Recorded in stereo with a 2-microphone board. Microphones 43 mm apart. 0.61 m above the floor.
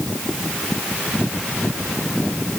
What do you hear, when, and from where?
Only background noise.